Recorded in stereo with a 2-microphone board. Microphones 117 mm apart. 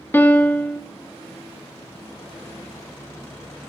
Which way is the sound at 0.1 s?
15° left (ahead or behind).